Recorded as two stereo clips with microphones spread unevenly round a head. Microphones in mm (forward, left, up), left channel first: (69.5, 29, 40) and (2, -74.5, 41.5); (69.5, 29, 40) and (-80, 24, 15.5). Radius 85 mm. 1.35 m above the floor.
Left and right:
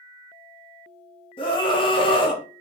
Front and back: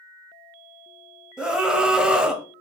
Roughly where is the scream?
Left.